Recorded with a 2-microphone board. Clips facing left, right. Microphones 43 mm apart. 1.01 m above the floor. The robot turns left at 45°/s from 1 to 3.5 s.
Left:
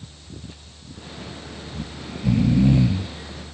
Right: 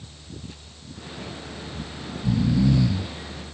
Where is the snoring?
80° left; by 3.5 s straight ahead.